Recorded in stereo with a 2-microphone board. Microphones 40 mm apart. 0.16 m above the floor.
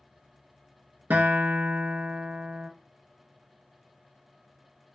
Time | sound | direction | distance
1.1 | a guitar | 60° right (ahead or behind) | 0.6 m